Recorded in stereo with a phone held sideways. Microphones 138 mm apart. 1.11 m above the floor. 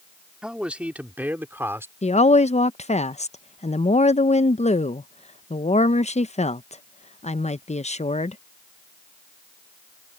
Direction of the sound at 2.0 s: 50° left (ahead or behind).